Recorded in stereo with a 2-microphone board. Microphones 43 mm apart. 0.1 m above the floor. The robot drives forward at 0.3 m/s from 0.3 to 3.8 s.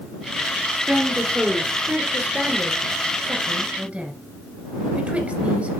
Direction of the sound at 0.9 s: 25° right (ahead or behind).